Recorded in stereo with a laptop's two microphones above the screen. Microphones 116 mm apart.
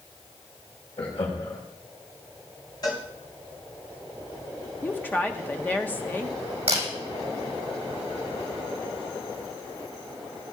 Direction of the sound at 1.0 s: 60° left (ahead or behind).